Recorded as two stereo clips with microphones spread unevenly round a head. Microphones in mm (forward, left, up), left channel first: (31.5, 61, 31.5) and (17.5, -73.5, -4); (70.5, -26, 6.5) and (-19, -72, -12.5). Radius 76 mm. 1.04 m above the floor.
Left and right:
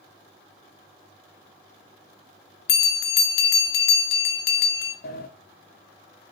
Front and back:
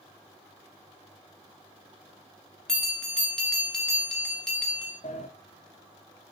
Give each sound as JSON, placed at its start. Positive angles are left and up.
{"t": 2.7, "sound": "a bell", "azimuth_deg": 115, "distance_m": 0.9}
{"t": 5.0, "sound": "a sliding door", "azimuth_deg": 70, "distance_m": 0.9}